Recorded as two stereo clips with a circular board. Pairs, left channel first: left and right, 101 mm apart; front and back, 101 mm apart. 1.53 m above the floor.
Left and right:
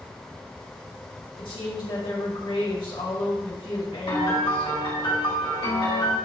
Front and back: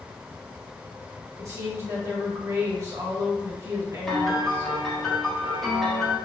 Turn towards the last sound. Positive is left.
turn(degrees=85)